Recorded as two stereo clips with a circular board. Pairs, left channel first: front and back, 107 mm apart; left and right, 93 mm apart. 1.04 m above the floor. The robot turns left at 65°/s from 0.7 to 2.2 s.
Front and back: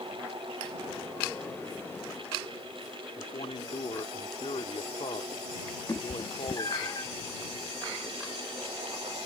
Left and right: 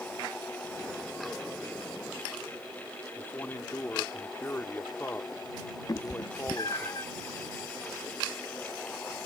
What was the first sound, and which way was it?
A man speaking, 20° left.